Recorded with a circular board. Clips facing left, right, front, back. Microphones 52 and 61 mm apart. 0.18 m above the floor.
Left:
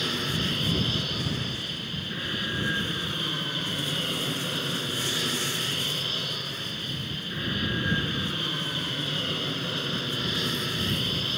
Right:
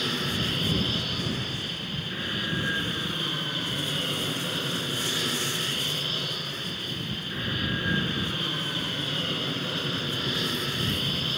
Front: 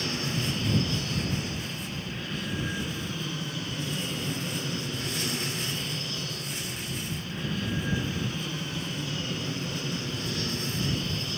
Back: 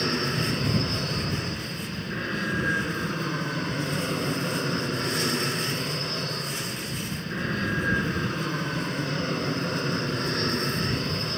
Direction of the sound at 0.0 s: Straight behind.